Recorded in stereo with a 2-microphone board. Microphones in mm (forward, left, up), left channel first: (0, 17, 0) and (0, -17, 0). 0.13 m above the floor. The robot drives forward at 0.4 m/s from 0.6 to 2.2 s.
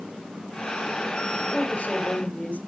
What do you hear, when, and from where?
1.5 s a woman speaking: 40° left (ahead or behind), 1.9 m; by 2.6 s 45° left (ahead or behind), 1.8 m